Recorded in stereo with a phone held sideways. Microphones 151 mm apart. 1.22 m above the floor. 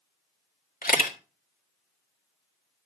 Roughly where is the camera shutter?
Left.